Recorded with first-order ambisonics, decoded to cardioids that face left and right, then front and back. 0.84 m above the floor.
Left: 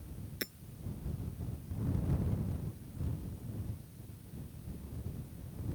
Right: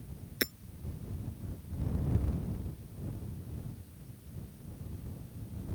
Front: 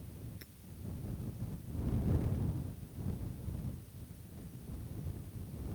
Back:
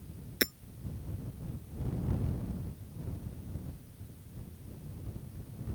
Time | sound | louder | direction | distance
0.4 | hammering | right 8 dB, back 25 dB | 155° right | ?